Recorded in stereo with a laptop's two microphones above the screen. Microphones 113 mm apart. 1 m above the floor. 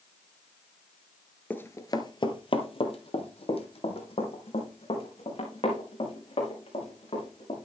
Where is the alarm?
No alarm in this recording.